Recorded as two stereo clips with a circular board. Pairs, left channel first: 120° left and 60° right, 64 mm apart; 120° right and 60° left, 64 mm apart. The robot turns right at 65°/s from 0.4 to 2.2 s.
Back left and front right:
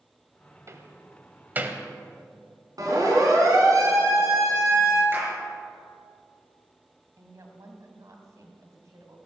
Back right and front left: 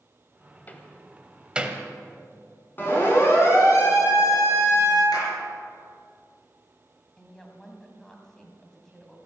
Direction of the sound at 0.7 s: 70° right.